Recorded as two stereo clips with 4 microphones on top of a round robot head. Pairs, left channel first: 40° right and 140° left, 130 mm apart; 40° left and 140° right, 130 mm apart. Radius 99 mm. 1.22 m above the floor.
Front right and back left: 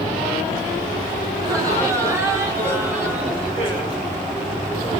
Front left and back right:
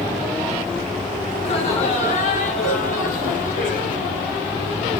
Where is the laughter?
80° left, 4.5 m; by 4.1 s 60° left, 6 m.